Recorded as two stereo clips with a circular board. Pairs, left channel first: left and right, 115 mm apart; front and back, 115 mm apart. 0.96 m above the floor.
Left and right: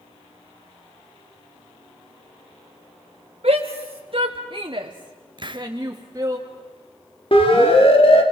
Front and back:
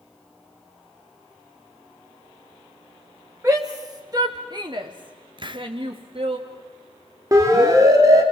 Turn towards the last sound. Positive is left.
turn(degrees=120)